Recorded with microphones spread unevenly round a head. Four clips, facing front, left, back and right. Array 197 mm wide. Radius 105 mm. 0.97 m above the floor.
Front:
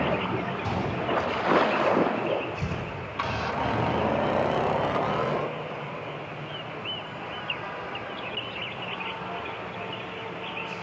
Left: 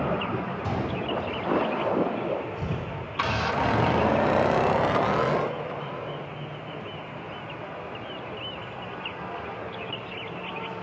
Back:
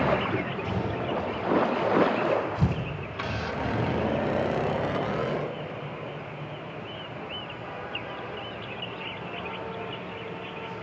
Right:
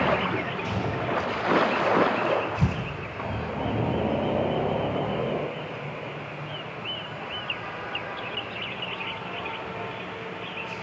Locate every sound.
0.6 s a gunshot: 65° left, 8.5 m
2.5 s tearing paper: 150° right, 5 m